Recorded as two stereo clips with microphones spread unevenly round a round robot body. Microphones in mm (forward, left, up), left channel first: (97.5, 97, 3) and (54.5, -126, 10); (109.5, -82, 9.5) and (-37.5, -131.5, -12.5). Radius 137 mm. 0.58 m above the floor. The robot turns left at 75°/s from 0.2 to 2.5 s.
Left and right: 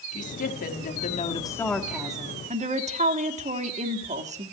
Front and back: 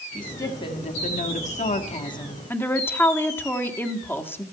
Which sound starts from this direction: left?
A woman speaking, at 0.1 s.